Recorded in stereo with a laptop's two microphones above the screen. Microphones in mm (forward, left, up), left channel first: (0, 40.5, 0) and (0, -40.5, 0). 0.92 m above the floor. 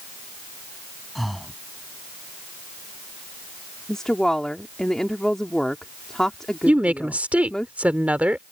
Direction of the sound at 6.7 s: 15° right (ahead or behind).